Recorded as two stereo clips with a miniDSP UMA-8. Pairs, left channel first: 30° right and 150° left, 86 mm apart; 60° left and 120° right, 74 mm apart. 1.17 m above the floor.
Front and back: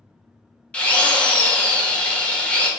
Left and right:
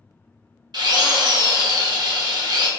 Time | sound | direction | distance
0.7 | a drill | 105° right | 0.5 m